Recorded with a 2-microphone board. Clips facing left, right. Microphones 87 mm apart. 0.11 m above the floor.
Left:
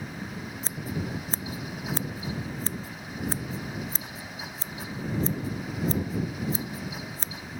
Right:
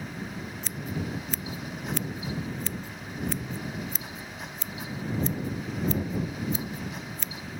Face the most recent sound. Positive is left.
turn(degrees=35)  # may be behind; listen again after turning